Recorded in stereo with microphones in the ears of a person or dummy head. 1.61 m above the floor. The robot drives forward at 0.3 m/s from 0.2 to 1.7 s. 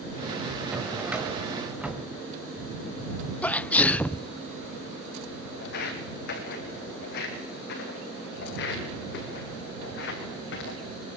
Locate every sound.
0.7 s a drawer: 10° right (ahead or behind), 1.9 m; by 2.1 s 5° right (ahead or behind), 2 m
3.4 s a sneeze: 5° left (ahead or behind), 0.8 m
5.6 s footsteps: 55° left (ahead or behind), 4 m; by 10.8 s 65° left (ahead or behind), 6.5 m